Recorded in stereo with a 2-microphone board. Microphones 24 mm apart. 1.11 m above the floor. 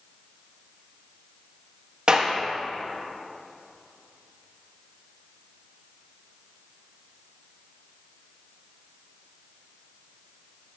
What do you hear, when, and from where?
2.1 s a clap: 35° right (ahead or behind), 1.0 m